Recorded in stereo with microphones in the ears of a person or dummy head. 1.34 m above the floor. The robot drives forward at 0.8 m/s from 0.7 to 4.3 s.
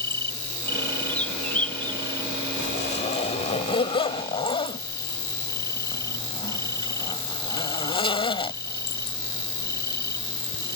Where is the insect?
15° left (ahead or behind).